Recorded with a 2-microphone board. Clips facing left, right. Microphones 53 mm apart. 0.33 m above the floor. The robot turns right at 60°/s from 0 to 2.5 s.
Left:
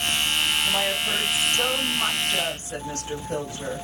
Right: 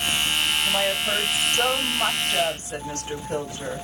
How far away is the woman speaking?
About 1.5 m.